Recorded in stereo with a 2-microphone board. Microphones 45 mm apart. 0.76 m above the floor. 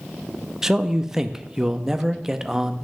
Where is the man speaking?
10° right (ahead or behind), 0.6 m.